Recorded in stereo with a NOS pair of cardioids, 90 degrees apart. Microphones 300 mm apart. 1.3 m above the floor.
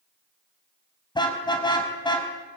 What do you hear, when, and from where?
1.1 s a car horn: 15° left, 5 m